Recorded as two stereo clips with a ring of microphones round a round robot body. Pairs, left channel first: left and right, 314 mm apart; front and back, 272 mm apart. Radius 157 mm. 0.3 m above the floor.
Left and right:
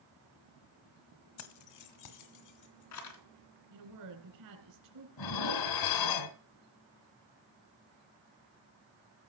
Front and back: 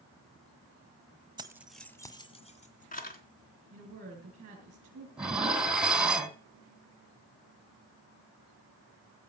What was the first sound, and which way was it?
Keys jangling, 110° left.